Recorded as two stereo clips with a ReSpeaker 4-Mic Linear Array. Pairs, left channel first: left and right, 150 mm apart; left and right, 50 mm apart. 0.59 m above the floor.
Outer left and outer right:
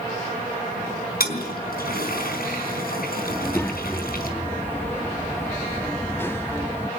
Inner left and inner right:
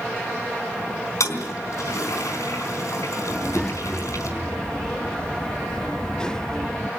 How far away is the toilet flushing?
About 4 m.